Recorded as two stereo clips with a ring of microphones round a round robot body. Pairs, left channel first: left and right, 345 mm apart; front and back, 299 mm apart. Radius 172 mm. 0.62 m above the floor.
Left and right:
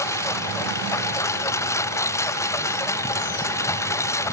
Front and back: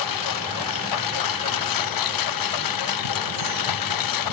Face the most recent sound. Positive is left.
turn(degrees=10)